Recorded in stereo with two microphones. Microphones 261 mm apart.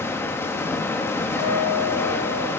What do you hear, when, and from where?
0.0 s running water: 10° left (ahead or behind), 1.0 m
1.4 s a guitar: 55° left (ahead or behind), 5 m